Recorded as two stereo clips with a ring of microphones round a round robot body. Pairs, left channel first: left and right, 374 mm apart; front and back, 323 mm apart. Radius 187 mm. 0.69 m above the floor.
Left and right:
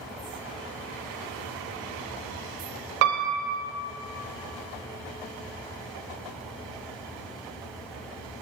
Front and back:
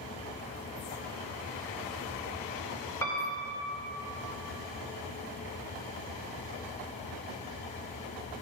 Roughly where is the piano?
Right.